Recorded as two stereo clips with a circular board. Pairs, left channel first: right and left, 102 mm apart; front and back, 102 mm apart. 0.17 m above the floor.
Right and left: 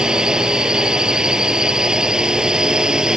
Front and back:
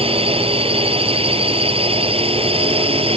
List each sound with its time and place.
0.0 s a drone: 170° left